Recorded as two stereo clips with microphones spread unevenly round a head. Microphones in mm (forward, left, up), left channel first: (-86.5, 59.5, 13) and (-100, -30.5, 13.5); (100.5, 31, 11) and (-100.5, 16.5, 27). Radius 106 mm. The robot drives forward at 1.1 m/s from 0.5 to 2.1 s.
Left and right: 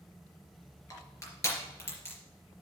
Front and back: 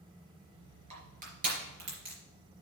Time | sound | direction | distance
0.9 | crushing | 130° left | 3.5 m